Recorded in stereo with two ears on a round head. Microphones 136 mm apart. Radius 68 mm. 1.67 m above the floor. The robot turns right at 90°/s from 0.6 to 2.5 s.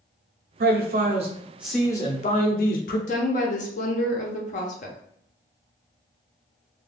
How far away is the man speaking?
About 0.7 m.